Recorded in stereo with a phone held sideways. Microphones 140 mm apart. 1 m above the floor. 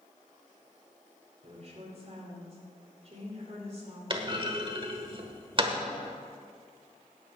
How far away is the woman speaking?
About 3.5 m.